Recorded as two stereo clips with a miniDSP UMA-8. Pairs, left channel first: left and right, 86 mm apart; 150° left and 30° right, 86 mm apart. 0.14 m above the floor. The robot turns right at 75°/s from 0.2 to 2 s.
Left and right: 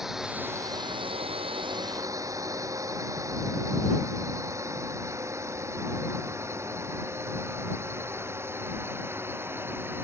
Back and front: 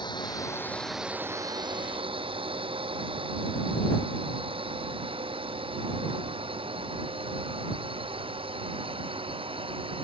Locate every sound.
0.0 s a drone: 175° right; by 10.0 s 25° right